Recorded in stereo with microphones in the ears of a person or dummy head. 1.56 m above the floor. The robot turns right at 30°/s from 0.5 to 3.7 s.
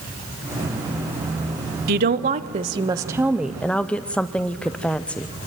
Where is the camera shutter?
No camera shutter in this recording.